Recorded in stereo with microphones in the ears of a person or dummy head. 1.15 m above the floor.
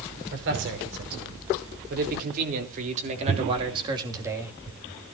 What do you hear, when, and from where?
0.3 s a man speaking: 65° right (ahead or behind), 5 m; by 4.6 s 10° right (ahead or behind), 2.5 m